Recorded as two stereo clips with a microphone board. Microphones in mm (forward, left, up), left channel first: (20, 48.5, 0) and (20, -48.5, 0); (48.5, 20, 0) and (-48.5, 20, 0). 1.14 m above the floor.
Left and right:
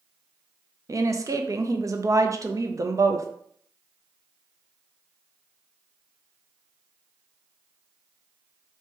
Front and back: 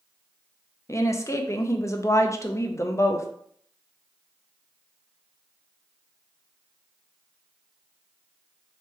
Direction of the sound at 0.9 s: 45° right.